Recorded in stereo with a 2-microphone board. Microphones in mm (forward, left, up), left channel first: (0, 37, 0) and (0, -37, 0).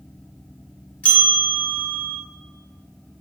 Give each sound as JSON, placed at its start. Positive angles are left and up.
{"t": 1.0, "sound": "a bell", "side_deg": 20, "distance_m": 0.9}